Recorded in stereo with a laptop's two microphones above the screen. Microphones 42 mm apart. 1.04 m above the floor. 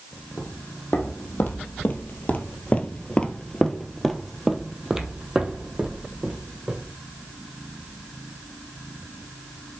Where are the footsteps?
50° left (ahead or behind), 2 m; by 7.0 s 25° right (ahead or behind), 2.5 m.